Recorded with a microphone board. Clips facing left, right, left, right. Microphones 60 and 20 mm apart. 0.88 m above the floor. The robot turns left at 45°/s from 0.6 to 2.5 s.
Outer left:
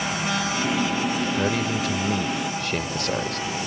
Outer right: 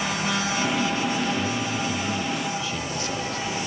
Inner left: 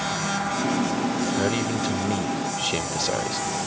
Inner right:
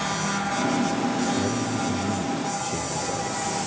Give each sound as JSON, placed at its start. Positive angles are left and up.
{"t": 1.4, "sound": "a man speaking", "azimuth_deg": 115}